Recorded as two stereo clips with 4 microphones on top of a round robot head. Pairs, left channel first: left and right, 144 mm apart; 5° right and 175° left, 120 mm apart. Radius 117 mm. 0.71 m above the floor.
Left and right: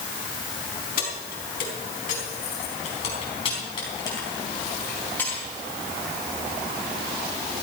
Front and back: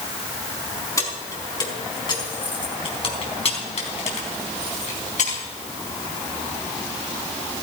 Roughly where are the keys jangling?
Ahead left.